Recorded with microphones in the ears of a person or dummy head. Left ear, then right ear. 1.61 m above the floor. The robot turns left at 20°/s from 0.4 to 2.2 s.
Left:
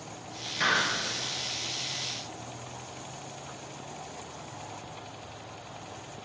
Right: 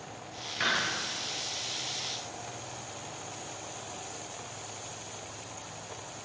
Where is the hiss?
15° right (ahead or behind), 3.5 m; by 0.9 s 25° right (ahead or behind), 3.5 m.